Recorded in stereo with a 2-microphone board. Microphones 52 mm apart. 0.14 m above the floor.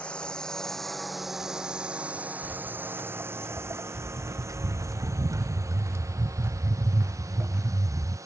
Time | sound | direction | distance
0.0 | a drone | 20° left (ahead or behind) | ?
2.4 | footsteps | 45° right (ahead or behind) | ?